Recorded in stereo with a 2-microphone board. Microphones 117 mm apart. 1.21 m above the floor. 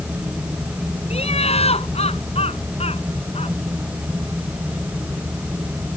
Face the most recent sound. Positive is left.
turn(degrees=55)  # may be behind; listen again after turning